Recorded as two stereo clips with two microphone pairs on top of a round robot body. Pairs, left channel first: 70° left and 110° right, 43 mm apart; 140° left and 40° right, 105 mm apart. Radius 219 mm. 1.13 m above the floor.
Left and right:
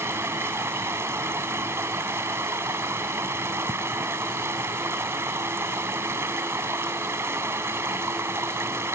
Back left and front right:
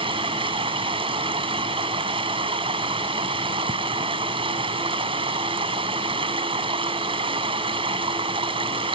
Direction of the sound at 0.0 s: 80° right.